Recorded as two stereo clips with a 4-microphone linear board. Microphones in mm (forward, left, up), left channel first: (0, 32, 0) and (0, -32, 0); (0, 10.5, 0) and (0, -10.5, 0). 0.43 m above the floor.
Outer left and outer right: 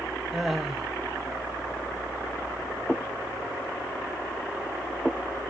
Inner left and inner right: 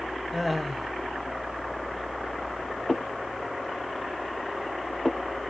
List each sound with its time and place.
0.3 s laughter: centre (ahead or behind), 1.6 m